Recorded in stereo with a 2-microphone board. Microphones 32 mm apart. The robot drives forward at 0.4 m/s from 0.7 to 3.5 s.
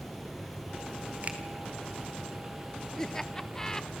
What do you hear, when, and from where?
0.0 s running water: centre (ahead or behind), 6 m
1.2 s a finger snap: 45° right (ahead or behind), 3 m
3.0 s laughter: 15° left (ahead or behind), 1.0 m